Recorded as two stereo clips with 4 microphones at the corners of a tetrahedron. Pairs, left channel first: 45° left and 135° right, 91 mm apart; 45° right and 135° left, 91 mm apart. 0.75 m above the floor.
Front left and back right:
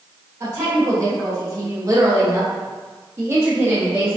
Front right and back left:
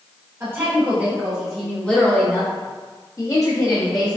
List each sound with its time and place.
0.4 s a woman speaking: straight behind, 1.3 m; by 4.2 s 70° right, 1.9 m